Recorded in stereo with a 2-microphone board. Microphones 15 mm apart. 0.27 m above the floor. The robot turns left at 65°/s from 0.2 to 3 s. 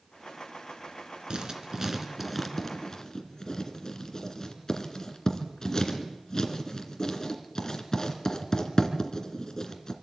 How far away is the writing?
About 2 m.